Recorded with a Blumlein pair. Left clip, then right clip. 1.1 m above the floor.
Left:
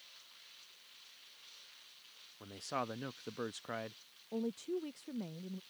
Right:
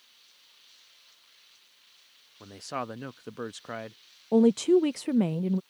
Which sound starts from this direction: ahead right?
A woman speaking, at 4.3 s.